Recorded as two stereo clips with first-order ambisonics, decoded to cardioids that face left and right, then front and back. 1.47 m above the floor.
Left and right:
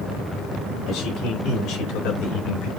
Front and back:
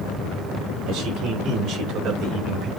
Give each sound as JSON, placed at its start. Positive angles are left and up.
{"t": 0.9, "sound": "a man speaking", "azimuth_deg": 145, "distance_m": 5.5}